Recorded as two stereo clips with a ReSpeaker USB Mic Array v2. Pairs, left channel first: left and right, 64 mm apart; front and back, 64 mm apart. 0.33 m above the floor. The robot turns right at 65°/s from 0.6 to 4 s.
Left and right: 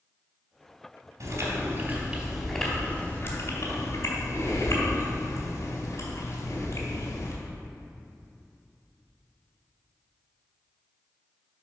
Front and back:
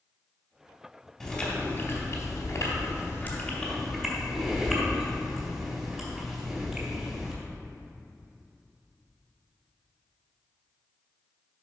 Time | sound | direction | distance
1.2 | chewing | 80° right | 2.5 m